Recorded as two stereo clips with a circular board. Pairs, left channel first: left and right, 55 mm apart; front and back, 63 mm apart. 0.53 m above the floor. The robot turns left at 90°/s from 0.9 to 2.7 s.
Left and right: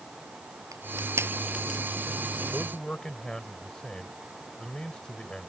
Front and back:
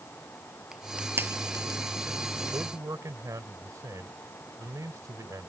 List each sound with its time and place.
0.7 s crushing: 100° right; by 1.8 s straight behind
2.5 s a man speaking: straight behind; by 5.5 s 165° left